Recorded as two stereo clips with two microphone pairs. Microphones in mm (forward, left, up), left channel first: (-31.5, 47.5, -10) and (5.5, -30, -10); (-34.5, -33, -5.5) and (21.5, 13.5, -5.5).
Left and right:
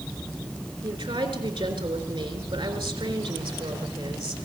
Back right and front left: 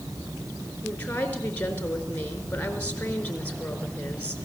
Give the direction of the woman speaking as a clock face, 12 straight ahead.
2 o'clock.